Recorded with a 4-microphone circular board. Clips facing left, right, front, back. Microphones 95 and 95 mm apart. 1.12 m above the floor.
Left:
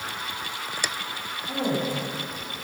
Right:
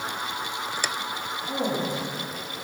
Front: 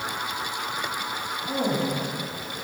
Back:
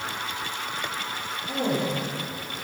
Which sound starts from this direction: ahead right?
A woman speaking, at 1.5 s.